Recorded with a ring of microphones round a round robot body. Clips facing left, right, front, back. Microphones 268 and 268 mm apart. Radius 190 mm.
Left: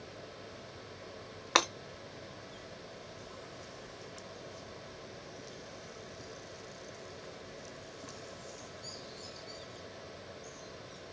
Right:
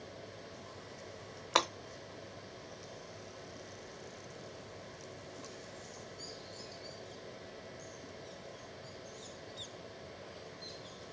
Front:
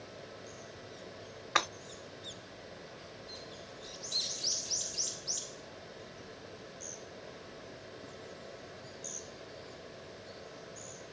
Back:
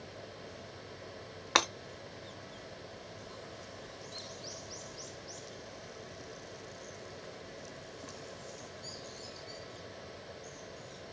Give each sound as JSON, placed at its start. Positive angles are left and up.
{"t": 1.6, "sound": "breaking glass", "azimuth_deg": 150, "distance_m": 1.0}